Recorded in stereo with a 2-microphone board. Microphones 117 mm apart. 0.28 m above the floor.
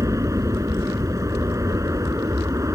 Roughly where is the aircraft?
Right.